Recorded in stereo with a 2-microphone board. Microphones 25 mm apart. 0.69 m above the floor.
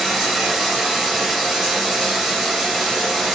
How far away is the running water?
About 0.9 m.